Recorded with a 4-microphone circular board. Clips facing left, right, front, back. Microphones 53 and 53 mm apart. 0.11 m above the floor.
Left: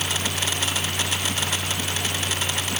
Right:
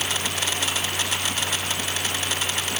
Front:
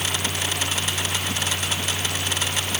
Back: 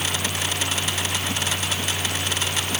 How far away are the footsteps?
No footsteps in this recording.